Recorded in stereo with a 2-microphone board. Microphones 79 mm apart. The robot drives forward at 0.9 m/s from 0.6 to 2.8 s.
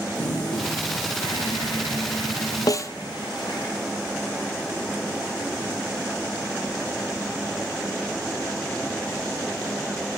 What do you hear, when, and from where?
0.1 s a toilet flushing: 70° left (ahead or behind), 7.5 m; by 3.7 s 80° left, 7 m
2.7 s a snare drum: 55° left (ahead or behind), 0.5 m; by 2.9 s 45° left (ahead or behind), 0.6 m